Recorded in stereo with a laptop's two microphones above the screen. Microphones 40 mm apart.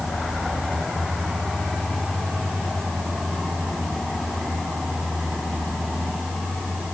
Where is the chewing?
I don't hear chewing.